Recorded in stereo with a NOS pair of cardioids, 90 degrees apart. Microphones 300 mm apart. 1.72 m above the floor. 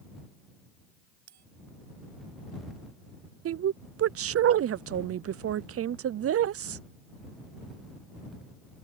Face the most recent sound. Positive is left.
turn(degrees=-50)